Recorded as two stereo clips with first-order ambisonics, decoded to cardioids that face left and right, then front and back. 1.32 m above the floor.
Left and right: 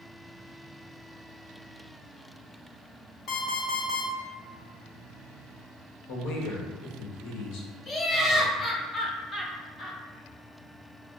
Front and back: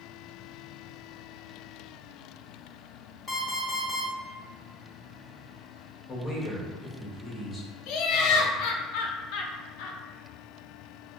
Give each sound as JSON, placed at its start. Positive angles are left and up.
{"t": 3.3, "sound": "an alarm clock", "azimuth_deg": 75, "distance_m": 0.8}
{"t": 6.1, "sound": "a man speaking", "azimuth_deg": 85, "distance_m": 0.9}
{"t": 7.9, "sound": "laughter", "azimuth_deg": 25, "distance_m": 0.5}